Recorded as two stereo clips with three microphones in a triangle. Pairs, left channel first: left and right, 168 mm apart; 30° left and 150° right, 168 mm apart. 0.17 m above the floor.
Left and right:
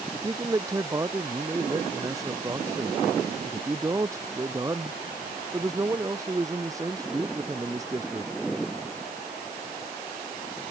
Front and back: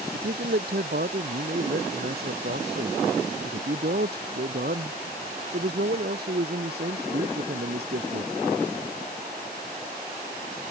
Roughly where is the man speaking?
Behind.